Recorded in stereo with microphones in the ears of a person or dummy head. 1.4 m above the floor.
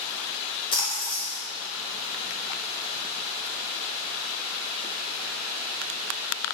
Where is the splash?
30° left (ahead or behind), 0.7 m.